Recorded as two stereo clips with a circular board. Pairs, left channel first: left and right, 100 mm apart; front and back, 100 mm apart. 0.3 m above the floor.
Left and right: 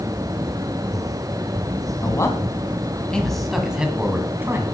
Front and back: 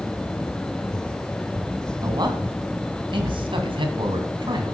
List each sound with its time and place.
2.0 s a man speaking: 140° left, 2.5 m; by 4.7 s 150° right, 2.5 m